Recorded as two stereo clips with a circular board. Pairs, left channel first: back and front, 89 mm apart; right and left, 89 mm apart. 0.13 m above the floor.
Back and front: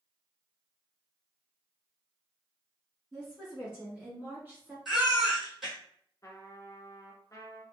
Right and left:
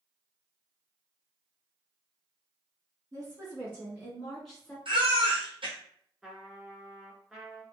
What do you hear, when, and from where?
3.1 s a woman speaking: 80° left, 1.6 m; by 4.8 s 20° right, 1.5 m
4.8 s a baby crying: 90° left, 1.4 m
6.2 s a trumpet: 170° left, 0.7 m